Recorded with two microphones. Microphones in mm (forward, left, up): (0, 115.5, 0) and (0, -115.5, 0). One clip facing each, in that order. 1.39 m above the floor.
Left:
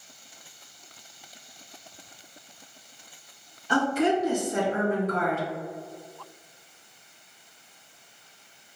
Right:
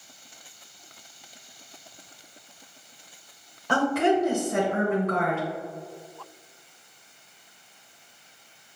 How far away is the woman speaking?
About 1.1 m.